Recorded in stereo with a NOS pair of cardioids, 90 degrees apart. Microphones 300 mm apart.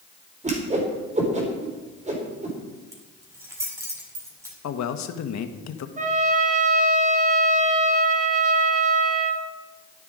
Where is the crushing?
I don't hear crushing.